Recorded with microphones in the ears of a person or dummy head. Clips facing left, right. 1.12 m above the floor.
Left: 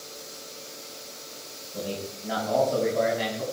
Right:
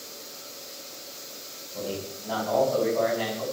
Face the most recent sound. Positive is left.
turn(degrees=15)  # may be behind; listen again after turning